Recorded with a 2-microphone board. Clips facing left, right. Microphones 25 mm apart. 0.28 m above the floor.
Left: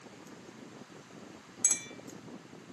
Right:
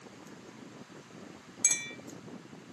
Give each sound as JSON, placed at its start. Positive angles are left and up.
{"t": 1.6, "sound": "a clink", "side_deg": -30, "distance_m": 1.6}